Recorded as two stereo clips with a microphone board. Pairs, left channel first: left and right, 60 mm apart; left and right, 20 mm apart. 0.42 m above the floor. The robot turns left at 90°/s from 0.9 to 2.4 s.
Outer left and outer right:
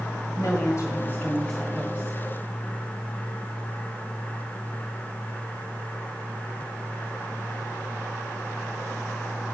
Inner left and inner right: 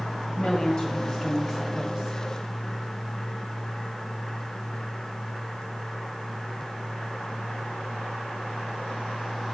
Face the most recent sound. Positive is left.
turn(degrees=-70)